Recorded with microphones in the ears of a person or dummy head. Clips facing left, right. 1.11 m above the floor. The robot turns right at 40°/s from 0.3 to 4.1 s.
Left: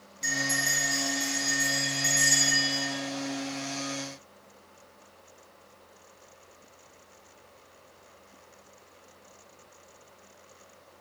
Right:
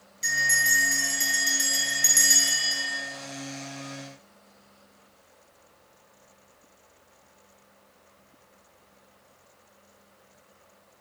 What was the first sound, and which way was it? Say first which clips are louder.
A bell: left 4 dB; 175° right.